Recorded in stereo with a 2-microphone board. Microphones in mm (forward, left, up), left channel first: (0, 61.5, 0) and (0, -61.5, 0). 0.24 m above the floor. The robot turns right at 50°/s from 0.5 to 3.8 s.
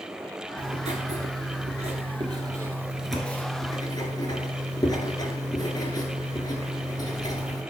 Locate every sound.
0.6 s writing: 125° right, 1.4 m; by 7.6 s 35° left, 1.4 m